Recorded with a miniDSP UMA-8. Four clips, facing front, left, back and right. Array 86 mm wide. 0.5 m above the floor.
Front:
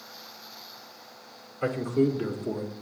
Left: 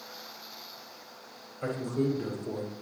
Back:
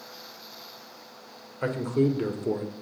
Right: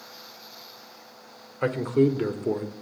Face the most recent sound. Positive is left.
turn(degrees=-120)